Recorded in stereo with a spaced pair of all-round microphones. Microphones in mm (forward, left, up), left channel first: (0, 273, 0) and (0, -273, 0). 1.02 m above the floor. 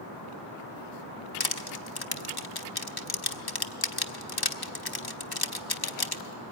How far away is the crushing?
About 1.0 m.